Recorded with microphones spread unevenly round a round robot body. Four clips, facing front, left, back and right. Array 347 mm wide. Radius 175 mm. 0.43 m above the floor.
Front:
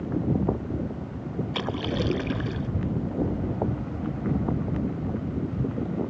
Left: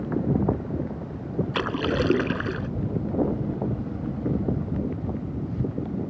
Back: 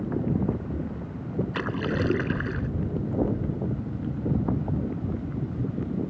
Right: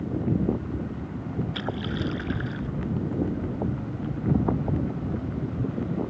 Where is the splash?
80° left.